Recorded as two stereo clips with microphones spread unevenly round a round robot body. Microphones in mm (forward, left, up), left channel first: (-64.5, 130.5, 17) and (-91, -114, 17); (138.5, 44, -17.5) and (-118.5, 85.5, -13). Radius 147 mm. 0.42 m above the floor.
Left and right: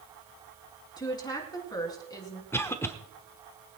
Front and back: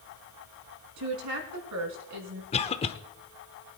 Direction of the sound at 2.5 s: 15° left.